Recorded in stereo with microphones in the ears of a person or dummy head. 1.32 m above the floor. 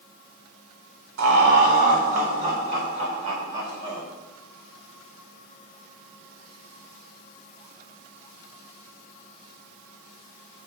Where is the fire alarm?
No fire alarm in this recording.